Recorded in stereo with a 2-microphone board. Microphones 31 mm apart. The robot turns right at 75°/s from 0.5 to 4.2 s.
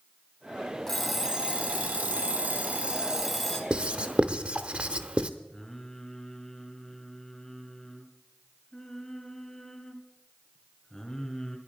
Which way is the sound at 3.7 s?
35° right (ahead or behind).